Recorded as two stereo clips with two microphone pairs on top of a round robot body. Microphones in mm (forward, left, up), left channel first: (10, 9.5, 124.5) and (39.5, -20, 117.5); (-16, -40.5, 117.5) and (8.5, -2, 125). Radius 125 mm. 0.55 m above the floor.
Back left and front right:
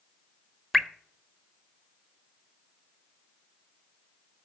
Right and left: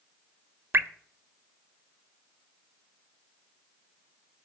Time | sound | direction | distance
0.7 | dripping | 45° left | 1.1 m